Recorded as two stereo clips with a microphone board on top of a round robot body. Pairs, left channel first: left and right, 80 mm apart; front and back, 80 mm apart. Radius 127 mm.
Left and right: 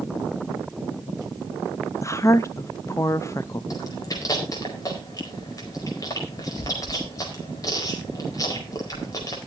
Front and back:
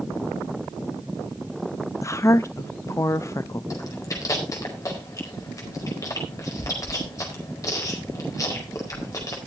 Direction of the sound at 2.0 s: 45° left.